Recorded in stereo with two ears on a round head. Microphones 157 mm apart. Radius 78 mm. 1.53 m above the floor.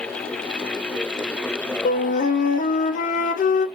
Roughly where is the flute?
Left.